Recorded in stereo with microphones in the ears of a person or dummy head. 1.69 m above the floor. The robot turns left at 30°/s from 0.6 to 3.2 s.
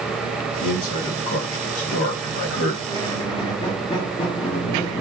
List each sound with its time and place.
0.6 s a man speaking: 130° left, 1.3 m; by 2.8 s 65° left, 1.3 m
2.9 s a squeak: 20° left (ahead or behind), 0.8 m; by 5.0 s 25° left (ahead or behind), 0.8 m